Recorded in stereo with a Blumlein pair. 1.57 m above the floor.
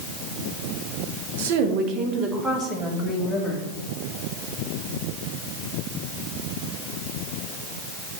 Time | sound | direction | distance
1.4 | a woman speaking | 55° right | 1.3 m